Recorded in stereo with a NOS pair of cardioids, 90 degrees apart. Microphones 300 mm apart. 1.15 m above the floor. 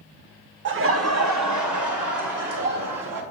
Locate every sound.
0.7 s laughter: 35° right, 0.7 m; by 3.2 s 80° right, 1.9 m